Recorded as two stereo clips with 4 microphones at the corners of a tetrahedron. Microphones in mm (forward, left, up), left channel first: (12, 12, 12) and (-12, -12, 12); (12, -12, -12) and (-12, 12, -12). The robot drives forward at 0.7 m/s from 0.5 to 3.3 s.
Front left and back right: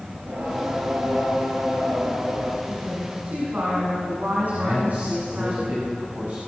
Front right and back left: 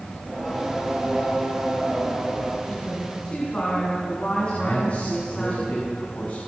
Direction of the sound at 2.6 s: 95° right.